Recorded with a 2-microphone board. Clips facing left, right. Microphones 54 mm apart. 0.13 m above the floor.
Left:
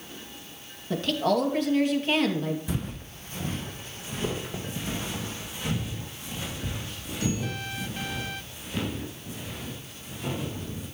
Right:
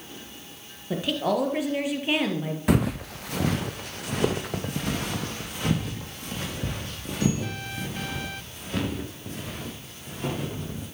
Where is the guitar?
I don't hear a guitar.